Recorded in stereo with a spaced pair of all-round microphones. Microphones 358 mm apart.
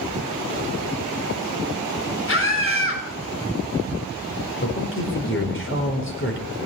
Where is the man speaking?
35° left (ahead or behind), 4.5 m.